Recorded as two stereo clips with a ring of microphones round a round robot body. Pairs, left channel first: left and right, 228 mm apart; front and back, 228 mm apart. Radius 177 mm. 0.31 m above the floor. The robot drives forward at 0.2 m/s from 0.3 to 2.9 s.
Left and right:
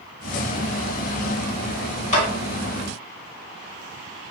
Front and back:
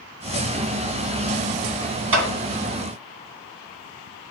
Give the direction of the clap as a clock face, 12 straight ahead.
7 o'clock.